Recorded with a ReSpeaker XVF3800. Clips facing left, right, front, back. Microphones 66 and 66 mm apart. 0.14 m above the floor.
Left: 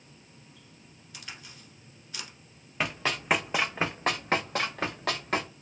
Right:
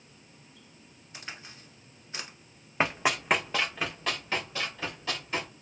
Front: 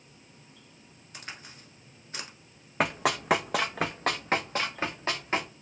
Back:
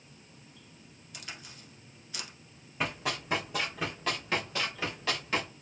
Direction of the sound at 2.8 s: 30° right.